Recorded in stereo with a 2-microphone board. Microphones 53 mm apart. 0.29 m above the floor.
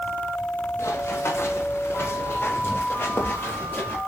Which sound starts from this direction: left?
Running footsteps, at 0.8 s.